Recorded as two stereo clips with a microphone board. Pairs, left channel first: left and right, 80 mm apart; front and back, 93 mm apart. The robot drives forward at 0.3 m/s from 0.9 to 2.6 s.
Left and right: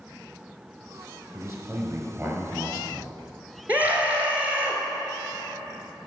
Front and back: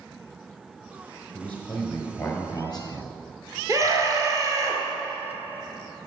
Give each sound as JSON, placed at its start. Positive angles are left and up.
{"t": 1.3, "sound": "a man speaking", "azimuth_deg": -65, "distance_m": 2.0}
{"t": 3.7, "sound": "a scream", "azimuth_deg": -150, "distance_m": 1.8}